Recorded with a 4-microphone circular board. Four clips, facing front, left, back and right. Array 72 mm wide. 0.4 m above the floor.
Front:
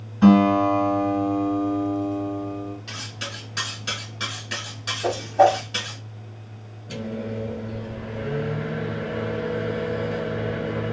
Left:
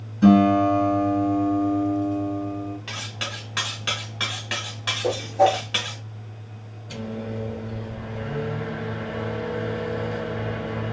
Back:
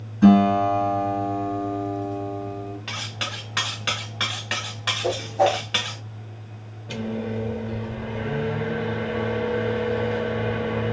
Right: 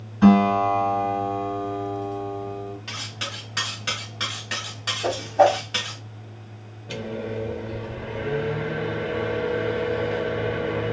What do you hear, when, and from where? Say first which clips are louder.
0.2 s a guitar: left 1 dB, even; 50° right, 1.5 m
2.9 s cutlery clinking: left 1 dB, back 3 dB; 165° left, 1.0 m
5.0 s a whoosh: right 1 dB, front 4 dB; 40° right, 0.9 m
6.9 s a microwave: right 2 dB, back 2 dB; 140° right, 0.9 m